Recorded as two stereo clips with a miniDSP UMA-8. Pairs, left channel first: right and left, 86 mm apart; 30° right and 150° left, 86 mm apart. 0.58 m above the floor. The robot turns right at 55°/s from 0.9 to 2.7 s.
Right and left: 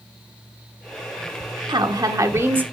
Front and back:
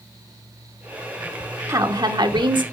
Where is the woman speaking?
105° left, 1.2 m; by 2.6 s 155° left, 1.2 m.